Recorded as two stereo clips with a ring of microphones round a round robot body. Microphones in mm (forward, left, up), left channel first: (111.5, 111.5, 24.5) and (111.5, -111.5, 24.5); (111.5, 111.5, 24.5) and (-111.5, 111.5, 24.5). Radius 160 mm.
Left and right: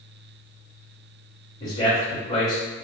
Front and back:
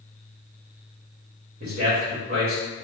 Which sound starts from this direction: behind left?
A man speaking, at 1.6 s.